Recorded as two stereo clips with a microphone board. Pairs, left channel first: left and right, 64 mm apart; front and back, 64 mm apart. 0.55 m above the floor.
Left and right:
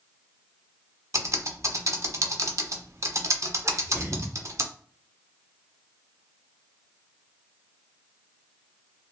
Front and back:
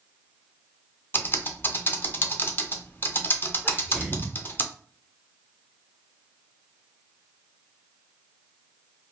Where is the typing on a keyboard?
55° right, 0.5 m.